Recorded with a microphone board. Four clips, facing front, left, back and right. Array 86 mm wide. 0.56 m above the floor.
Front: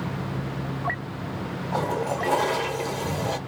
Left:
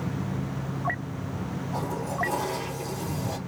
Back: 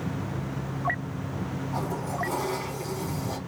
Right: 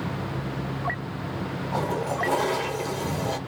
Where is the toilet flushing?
30° right, 1.2 m.